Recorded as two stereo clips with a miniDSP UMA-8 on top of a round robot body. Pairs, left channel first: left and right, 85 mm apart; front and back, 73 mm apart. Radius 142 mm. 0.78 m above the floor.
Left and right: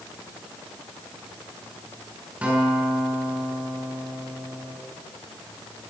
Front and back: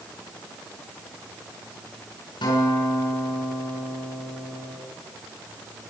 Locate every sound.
2.4 s a guitar: 15° right, 8 m